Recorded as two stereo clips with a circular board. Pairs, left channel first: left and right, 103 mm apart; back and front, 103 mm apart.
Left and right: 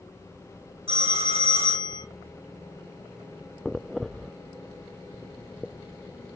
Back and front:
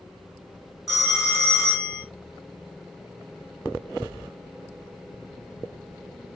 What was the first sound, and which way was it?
A phone ringing, 90° right.